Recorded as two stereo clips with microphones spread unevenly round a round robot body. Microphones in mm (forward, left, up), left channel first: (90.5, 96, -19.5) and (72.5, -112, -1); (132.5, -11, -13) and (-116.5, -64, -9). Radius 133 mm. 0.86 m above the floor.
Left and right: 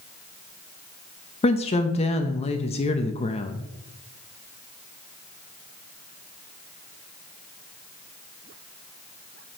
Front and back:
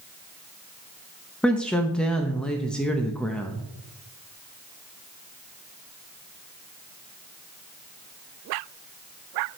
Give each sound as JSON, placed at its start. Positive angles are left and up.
{"t": 1.4, "sound": "a woman speaking", "azimuth_deg": 95, "distance_m": 0.7}